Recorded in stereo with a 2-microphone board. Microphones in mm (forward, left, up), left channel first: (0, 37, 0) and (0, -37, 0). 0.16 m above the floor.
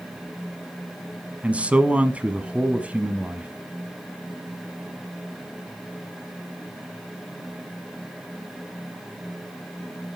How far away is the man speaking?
About 1.0 m.